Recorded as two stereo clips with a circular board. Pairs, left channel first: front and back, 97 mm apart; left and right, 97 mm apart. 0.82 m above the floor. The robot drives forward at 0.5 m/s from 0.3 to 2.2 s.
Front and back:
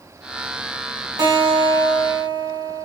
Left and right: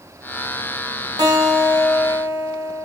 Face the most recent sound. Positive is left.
turn(degrees=-145)